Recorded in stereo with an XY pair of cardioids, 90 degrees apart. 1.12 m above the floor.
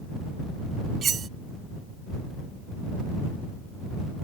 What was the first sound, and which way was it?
Cutlery clinking, 55° right.